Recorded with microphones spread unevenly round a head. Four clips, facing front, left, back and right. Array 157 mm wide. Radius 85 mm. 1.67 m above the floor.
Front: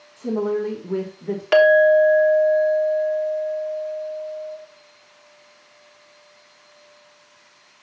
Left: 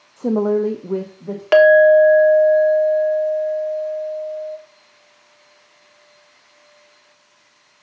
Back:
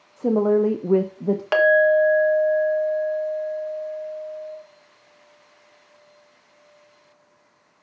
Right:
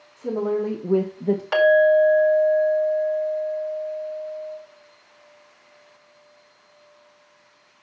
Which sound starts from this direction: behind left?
A woman speaking, at 0.2 s.